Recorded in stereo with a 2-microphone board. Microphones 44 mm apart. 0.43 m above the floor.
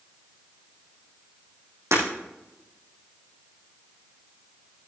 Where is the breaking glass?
85° right, 5 m.